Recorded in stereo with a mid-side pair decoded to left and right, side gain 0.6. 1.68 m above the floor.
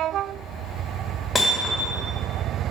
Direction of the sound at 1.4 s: Straight ahead.